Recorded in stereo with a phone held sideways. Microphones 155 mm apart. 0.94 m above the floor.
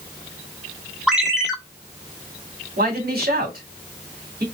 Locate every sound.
1.1 s a ringtone: 5° right (ahead or behind), 1.2 m
2.8 s a man speaking: 70° right (ahead or behind), 2.5 m